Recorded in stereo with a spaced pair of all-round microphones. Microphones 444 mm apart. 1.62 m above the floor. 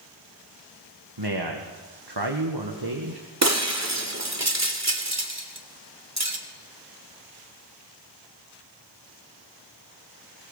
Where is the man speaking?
55° right (ahead or behind), 1.9 m.